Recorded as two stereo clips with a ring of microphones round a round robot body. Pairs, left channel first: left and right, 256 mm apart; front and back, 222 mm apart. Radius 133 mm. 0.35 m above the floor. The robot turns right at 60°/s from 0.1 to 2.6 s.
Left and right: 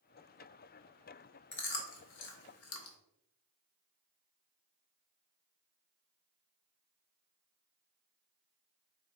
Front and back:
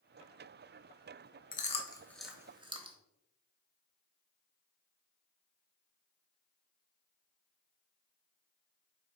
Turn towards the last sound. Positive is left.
turn(degrees=110)